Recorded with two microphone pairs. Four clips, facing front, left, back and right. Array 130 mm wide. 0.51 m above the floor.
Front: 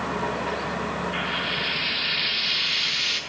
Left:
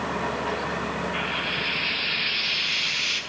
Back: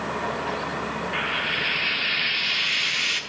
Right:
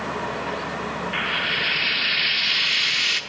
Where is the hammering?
No hammering in this recording.